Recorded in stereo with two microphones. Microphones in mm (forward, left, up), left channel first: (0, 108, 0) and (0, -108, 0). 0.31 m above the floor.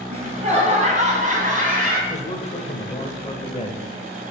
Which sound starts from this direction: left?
A man speaking, at 2.1 s.